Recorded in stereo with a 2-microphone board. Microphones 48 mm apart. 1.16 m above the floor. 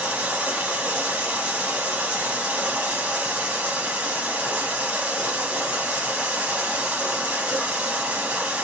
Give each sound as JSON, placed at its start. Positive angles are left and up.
{"t": 0.0, "sound": "running water", "side_deg": -25, "distance_m": 1.1}